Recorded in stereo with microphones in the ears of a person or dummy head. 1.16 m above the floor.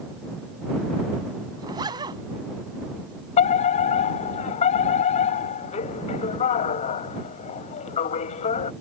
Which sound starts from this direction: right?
A zipper, at 1.6 s.